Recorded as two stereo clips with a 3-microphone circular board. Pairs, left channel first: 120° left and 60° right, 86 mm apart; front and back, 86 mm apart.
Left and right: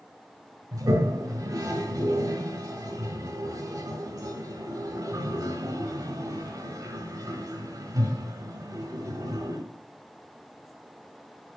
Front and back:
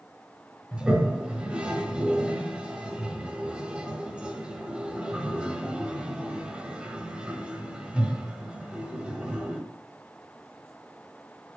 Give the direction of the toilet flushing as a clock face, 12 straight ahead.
3 o'clock.